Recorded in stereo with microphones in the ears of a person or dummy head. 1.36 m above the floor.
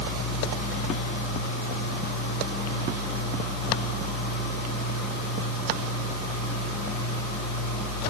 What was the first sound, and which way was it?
Only background noise.